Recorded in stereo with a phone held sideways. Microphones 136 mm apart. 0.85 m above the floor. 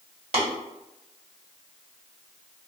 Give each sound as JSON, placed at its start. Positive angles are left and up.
{"t": 0.3, "sound": "tapping", "side_deg": -55, "distance_m": 1.8}